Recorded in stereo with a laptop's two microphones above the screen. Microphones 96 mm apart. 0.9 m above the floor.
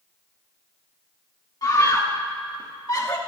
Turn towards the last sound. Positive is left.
turn(degrees=40)  # may be behind; listen again after turning